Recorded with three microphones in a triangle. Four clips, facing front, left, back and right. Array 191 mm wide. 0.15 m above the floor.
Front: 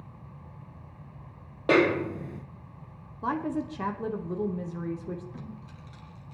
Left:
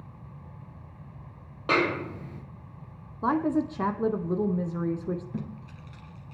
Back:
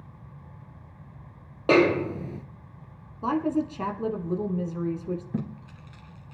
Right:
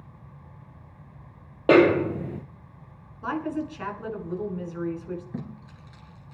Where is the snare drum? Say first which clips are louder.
Right 10 dB, back 3 dB; 95° right, 0.7 m.